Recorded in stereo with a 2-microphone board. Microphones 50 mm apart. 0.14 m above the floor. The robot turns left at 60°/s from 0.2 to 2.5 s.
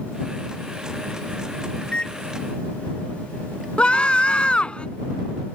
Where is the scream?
20° left (ahead or behind).